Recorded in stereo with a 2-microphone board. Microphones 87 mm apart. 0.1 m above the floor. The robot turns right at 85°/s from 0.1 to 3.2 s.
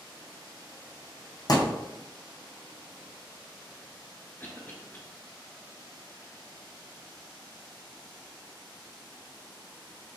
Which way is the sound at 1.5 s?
45° left (ahead or behind).